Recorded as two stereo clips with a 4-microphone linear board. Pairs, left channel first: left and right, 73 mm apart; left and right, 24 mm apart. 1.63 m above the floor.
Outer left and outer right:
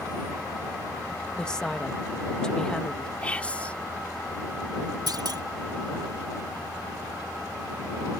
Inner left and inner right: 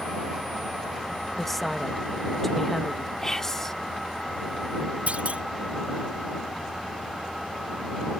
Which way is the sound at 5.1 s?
70° right (ahead or behind).